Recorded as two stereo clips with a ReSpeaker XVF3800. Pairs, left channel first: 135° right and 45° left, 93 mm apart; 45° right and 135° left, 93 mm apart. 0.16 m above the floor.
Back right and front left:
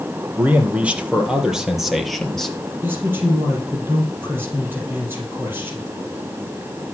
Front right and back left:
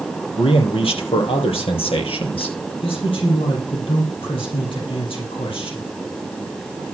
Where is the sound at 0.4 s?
30° right, 4 m; by 2.7 s 55° right, 3 m.